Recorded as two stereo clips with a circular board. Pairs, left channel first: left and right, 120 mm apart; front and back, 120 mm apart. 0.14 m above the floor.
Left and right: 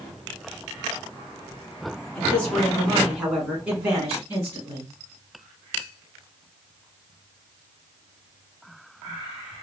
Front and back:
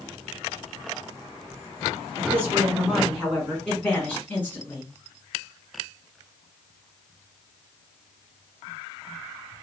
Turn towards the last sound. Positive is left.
turn(degrees=-55)